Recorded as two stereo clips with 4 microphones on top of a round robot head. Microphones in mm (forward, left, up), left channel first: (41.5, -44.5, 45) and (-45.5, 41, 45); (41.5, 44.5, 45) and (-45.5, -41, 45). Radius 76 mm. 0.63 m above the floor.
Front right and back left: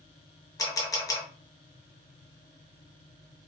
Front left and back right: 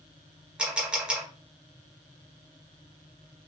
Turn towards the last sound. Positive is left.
turn(degrees=-60)